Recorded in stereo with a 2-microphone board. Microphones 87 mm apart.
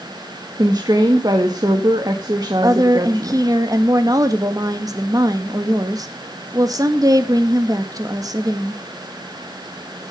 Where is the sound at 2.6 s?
45° right (ahead or behind), 1.9 m.